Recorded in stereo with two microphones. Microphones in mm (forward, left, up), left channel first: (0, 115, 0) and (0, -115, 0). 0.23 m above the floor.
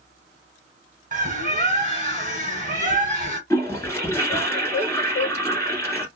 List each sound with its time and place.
1.1 s a bird: 35° right (ahead or behind), 1.5 m
3.5 s a toilet flushing: 10° left (ahead or behind), 1.3 m